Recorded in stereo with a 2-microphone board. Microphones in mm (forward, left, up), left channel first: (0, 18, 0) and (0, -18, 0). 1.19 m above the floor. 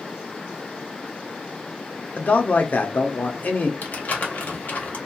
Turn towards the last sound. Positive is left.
turn(degrees=50)  # may be behind; listen again after turning